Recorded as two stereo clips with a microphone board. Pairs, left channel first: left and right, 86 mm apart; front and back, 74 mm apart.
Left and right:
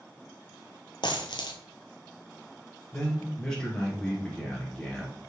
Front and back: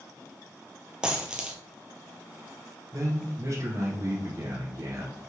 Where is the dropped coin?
105° left, 0.8 m.